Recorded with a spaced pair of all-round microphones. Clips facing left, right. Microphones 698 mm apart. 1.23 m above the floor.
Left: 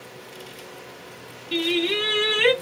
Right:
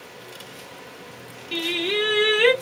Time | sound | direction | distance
1.5 | singing | centre (ahead or behind) | 0.9 m